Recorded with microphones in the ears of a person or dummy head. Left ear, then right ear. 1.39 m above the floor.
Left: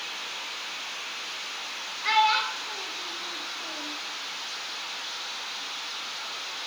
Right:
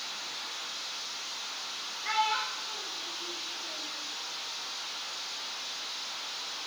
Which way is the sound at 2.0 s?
30° left (ahead or behind).